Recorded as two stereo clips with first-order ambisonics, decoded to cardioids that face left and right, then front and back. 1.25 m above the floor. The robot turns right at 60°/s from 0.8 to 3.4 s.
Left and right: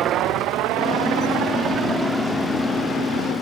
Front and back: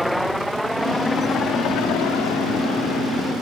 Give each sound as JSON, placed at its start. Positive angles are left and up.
{"t": 0.0, "sound": "a helicopter", "azimuth_deg": -85}